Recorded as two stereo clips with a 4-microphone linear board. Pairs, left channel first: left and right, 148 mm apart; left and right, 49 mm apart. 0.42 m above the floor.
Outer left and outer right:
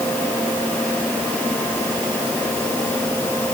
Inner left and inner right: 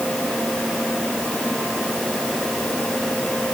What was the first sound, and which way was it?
Only background noise.